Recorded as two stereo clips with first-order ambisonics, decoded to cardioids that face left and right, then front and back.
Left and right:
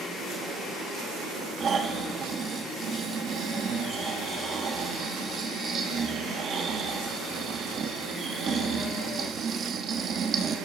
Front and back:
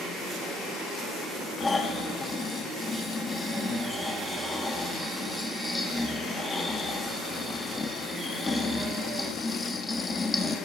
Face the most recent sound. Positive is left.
turn(degrees=-65)